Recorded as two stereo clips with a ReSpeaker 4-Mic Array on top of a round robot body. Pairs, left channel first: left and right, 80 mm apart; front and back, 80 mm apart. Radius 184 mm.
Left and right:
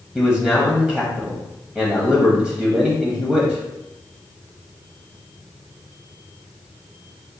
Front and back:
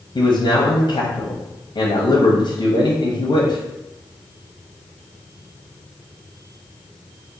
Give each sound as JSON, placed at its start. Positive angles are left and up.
{"t": 0.1, "sound": "a man speaking", "azimuth_deg": 0, "distance_m": 1.1}